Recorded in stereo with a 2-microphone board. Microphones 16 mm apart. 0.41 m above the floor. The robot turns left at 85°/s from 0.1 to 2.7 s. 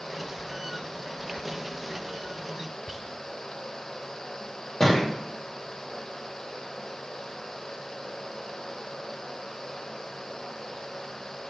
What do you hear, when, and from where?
2.9 s whispering: 20° right (ahead or behind), 0.8 m
4.8 s a thud: 35° left (ahead or behind), 3.5 m